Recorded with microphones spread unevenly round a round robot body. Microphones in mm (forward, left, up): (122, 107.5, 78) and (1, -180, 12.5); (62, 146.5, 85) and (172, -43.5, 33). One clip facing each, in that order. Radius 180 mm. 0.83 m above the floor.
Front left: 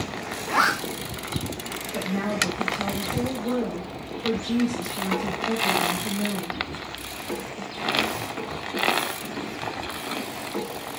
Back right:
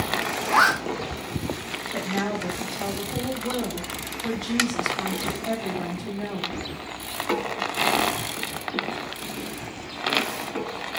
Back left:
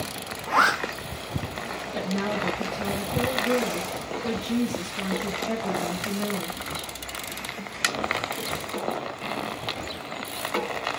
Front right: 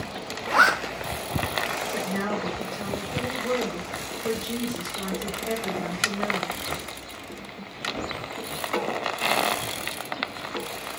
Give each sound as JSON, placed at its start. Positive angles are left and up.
{"t": 0.5, "sound": "a zipper", "azimuth_deg": -70, "distance_m": 0.8}
{"t": 1.9, "sound": "a woman speaking", "azimuth_deg": -135, "distance_m": 2.0}